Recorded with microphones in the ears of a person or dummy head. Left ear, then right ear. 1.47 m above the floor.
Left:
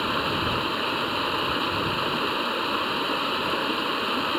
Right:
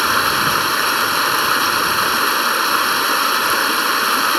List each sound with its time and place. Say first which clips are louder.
0.0 s running water: right 10 dB; 60° right (ahead or behind)